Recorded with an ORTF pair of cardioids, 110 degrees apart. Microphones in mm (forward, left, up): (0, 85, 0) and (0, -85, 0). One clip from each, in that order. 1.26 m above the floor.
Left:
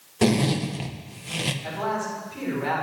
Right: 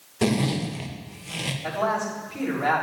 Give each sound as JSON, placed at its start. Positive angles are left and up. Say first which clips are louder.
{"t": 0.2, "sound": "a zipper", "louder": "left 2 dB", "azimuth_deg": 10, "distance_m": 0.7}
{"t": 1.6, "sound": "a man speaking", "louder": "right 3 dB", "azimuth_deg": -45, "distance_m": 4.0}